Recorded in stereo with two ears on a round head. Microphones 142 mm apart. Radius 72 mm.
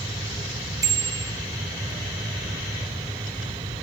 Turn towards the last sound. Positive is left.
turn(degrees=-20)  # may be behind; listen again after turning